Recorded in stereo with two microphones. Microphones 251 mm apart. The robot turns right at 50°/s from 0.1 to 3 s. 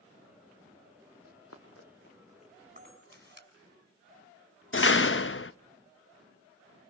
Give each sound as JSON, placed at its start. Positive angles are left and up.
{"t": 1.2, "sound": "running footsteps", "side_deg": 70, "distance_m": 3.0}
{"t": 2.8, "sound": "a camera shutter", "side_deg": -30, "distance_m": 5.5}
{"t": 4.7, "sound": "a door slam", "side_deg": 50, "distance_m": 0.6}